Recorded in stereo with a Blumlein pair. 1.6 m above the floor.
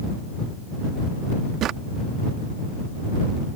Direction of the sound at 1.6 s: 30° right.